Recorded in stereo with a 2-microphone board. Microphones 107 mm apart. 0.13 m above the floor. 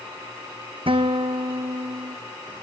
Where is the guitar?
55° right (ahead or behind), 1.6 m.